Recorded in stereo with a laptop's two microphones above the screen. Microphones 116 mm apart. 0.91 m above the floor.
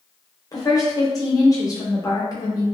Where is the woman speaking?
30° left (ahead or behind), 0.9 m.